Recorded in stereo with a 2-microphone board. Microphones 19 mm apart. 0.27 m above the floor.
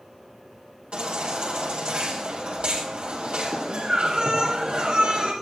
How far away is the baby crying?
About 5 m.